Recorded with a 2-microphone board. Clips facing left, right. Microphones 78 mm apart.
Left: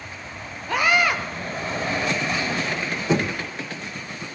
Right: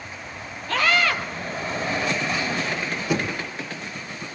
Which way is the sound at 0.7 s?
15° left (ahead or behind).